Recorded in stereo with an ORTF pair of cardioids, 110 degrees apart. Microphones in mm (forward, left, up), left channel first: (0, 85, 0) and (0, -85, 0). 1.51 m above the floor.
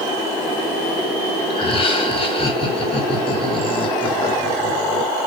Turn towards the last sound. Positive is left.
turn(degrees=35)